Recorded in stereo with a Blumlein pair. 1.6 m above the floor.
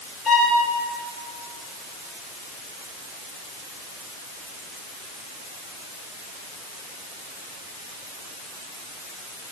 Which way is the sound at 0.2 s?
15° left.